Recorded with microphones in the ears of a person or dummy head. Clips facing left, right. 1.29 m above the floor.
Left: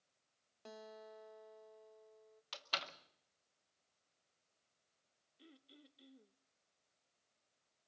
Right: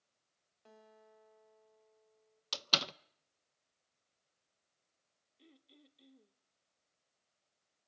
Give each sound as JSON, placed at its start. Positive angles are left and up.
{"t": 0.7, "sound": "a guitar", "side_deg": 75, "distance_m": 1.4}
{"t": 2.5, "sound": "a door slam", "side_deg": -65, "distance_m": 0.6}
{"t": 5.4, "sound": "throat clearing", "side_deg": 5, "distance_m": 0.9}